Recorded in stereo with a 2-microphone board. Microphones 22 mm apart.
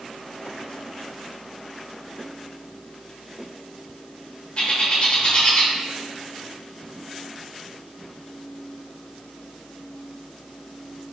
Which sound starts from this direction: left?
A bird, at 4.6 s.